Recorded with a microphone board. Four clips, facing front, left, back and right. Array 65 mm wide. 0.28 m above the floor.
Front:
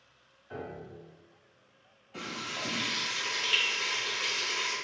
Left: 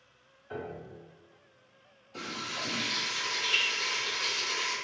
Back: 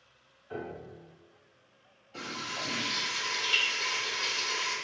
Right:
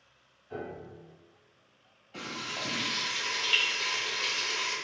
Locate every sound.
0.5 s a piano: 100° left, 0.8 m
2.1 s frying: 75° right, 1.8 m